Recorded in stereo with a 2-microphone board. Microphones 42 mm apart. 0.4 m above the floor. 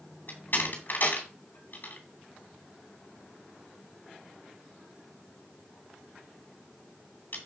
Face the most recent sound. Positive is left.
turn(degrees=50)  # may be behind; listen again after turning